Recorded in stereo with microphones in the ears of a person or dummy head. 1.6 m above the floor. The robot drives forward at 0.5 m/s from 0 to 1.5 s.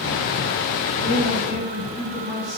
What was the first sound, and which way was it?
A man speaking, centre (ahead or behind).